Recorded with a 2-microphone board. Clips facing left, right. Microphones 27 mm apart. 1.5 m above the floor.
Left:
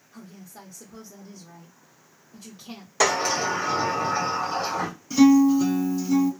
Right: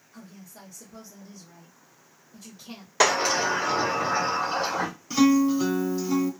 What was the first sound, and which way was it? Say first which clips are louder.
A woman speaking: left 2 dB; 35° left (ahead or behind).